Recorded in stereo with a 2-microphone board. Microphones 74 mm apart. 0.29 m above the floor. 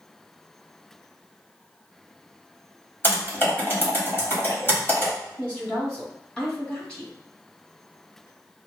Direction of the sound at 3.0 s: 30° left (ahead or behind).